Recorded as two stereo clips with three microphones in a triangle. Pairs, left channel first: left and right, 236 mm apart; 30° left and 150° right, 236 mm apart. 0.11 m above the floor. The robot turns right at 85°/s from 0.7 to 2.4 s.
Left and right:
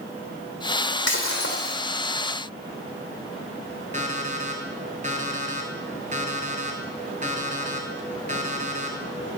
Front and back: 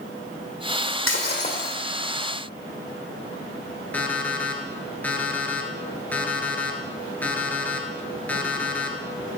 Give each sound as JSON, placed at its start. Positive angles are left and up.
{"t": 1.1, "sound": "breaking glass", "azimuth_deg": 55, "distance_m": 2.0}
{"t": 3.9, "sound": "an alarm clock", "azimuth_deg": -50, "distance_m": 1.0}